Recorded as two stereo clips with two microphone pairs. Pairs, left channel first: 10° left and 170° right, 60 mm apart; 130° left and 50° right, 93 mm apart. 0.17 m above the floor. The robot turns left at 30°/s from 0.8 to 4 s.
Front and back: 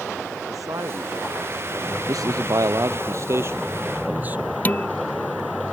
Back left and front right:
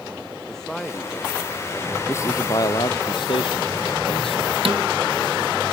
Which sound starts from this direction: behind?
A man speaking, at 2.1 s.